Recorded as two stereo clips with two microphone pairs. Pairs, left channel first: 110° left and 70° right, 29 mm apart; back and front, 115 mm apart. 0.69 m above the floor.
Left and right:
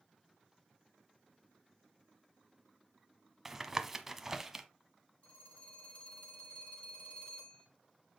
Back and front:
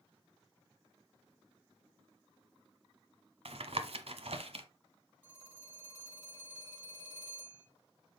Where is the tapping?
10° left, 1.0 m.